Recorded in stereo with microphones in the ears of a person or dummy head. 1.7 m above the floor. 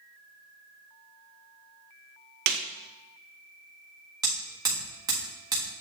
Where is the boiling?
I don't hear boiling.